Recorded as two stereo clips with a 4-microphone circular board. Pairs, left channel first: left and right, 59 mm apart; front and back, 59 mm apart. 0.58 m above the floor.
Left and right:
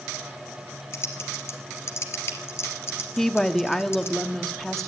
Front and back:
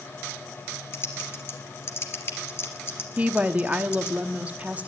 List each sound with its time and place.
0.9 s typing on a keyboard: 45° left, 2.5 m
3.2 s a woman speaking: 165° left, 0.9 m